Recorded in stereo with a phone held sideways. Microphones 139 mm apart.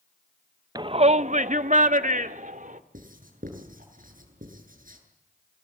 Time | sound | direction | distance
0.8 | a shout | 30° right (ahead or behind) | 0.6 m
2.9 | writing | 80° right | 8 m